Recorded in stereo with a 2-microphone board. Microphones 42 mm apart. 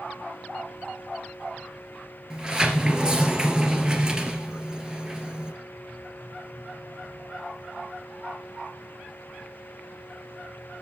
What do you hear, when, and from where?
2.3 s a sliding door: 20° right (ahead or behind), 1.9 m